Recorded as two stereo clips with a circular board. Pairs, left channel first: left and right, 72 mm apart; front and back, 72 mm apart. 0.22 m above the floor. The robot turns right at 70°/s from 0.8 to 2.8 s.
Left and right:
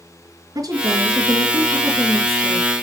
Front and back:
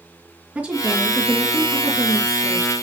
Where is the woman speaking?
115° right, 3.5 m; by 2.8 s 20° left, 3.5 m.